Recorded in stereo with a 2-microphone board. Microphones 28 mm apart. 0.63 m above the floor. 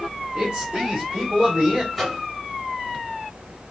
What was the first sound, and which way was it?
A man speaking, 45° right (ahead or behind).